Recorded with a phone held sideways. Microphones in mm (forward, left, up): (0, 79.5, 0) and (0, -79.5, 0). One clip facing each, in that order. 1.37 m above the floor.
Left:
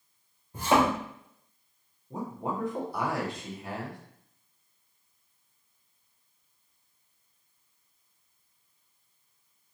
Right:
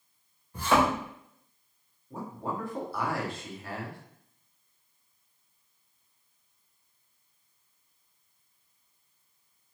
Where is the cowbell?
No cowbell in this recording.